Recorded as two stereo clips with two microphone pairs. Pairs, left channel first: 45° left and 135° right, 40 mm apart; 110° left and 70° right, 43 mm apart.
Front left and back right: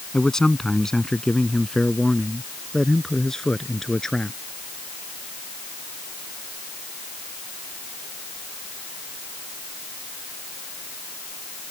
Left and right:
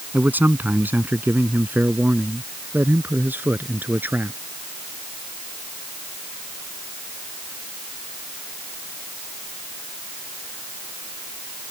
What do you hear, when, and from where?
0.1 s a man speaking: 30° right